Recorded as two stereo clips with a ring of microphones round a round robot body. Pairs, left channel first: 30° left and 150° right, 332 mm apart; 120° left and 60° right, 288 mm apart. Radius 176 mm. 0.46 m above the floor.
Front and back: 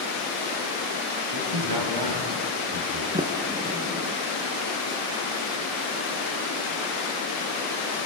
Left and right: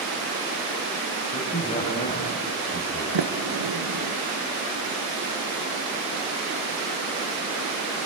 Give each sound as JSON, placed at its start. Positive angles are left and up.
{"t": 1.3, "sound": "a man speaking", "azimuth_deg": -170, "distance_m": 3.0}
{"t": 3.1, "sound": "a sliding door", "azimuth_deg": -75, "distance_m": 1.3}